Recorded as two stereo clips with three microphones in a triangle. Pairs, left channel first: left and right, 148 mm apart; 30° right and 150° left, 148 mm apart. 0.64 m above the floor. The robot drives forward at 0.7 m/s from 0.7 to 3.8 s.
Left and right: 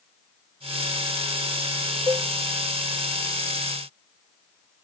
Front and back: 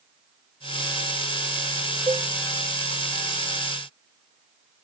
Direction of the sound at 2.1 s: 150° right.